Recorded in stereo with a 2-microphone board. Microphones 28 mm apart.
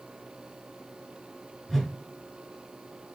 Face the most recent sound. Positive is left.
turn(degrees=0)  # may be behind; listen again after turning